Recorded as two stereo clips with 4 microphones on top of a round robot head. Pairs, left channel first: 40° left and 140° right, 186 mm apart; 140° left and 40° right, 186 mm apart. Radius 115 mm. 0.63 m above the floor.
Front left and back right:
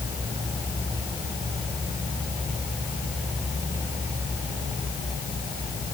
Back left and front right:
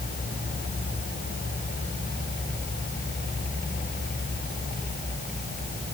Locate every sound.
Only background noise.